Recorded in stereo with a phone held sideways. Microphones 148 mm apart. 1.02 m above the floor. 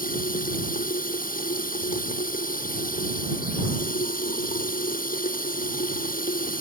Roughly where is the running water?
Left.